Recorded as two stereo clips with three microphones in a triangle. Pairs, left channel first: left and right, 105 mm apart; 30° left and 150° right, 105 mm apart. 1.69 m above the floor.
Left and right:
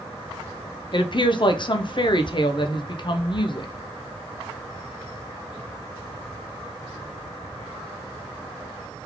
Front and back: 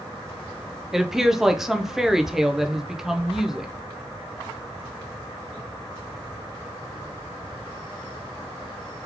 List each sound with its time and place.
0.9 s a woman speaking: 125° left, 0.5 m